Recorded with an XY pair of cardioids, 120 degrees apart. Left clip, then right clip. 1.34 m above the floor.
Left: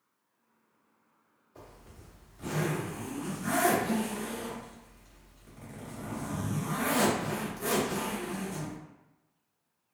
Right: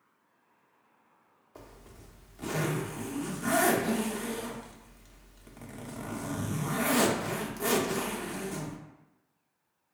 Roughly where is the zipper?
Ahead right.